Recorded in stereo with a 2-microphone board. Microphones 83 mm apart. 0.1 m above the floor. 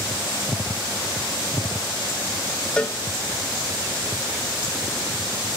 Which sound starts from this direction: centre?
A cowbell, at 2.8 s.